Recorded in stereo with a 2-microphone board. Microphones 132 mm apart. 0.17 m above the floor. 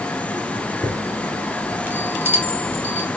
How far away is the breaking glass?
No breaking glass in this recording.